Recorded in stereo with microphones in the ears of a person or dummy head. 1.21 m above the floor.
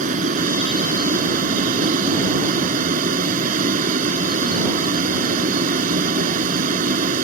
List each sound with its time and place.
0.0 s a vehicle: 40° right (ahead or behind)